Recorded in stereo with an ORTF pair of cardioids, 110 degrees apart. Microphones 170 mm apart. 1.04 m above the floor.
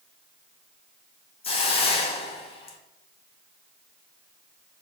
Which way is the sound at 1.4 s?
35° left.